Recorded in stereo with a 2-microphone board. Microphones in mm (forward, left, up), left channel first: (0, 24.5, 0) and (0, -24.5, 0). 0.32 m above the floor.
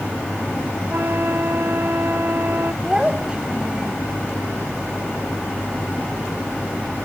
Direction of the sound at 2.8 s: 20° right (ahead or behind).